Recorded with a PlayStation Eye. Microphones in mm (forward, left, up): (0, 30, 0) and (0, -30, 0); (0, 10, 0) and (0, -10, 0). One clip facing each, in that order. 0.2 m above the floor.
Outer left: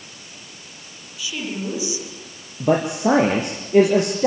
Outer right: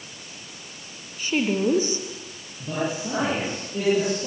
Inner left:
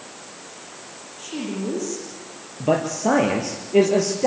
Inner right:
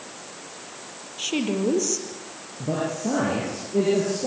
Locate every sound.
1.2 s a woman speaking: 45° right (ahead or behind), 6.5 m
2.6 s a man speaking: 75° left (ahead or behind), 4.5 m